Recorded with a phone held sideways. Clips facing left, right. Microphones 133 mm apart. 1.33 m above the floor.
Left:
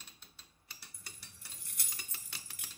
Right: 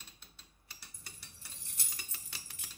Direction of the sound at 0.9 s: 25° right (ahead or behind).